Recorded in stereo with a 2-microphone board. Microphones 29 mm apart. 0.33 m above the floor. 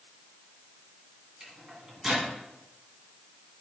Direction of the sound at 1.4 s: 25° right (ahead or behind).